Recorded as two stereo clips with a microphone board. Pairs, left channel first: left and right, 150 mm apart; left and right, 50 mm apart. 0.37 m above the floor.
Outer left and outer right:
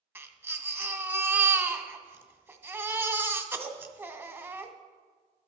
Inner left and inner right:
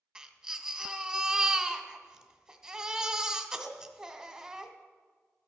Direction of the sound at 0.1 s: 15° right (ahead or behind).